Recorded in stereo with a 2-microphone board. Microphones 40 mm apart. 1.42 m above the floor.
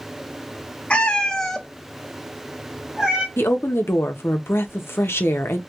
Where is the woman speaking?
80° left, 0.8 m.